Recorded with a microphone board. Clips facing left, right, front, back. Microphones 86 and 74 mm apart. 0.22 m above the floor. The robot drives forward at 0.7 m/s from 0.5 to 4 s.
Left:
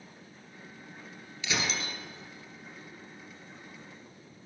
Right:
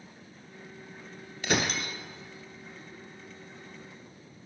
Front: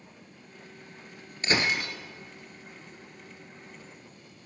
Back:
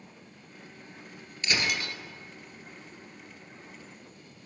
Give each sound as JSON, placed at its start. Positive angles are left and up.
{"t": 1.4, "sound": "breaking glass", "azimuth_deg": -55, "distance_m": 1.3}